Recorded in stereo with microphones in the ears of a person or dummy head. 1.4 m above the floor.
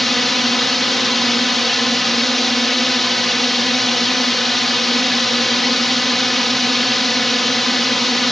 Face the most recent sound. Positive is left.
turn(degrees=5)  # may be behind; listen again after turning